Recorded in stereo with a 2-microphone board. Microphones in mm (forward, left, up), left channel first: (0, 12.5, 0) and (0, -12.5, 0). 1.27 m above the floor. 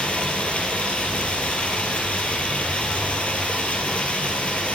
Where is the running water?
60° left (ahead or behind), 3 m.